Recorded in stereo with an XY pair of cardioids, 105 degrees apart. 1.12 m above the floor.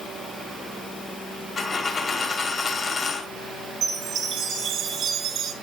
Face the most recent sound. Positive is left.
turn(degrees=-65)